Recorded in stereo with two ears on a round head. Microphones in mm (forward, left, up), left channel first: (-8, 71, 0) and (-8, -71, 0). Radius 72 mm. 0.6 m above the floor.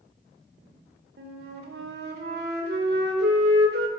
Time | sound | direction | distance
1.2 | a flute | 70° right (ahead or behind) | 1.5 m